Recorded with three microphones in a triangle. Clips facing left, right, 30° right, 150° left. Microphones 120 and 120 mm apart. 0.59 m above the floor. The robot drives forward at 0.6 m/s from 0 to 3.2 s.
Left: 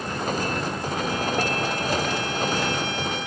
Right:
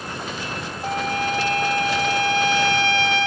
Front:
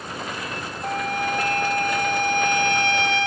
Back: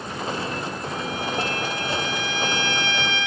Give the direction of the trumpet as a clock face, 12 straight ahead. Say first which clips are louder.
Right 6 dB, front 8 dB; 2 o'clock.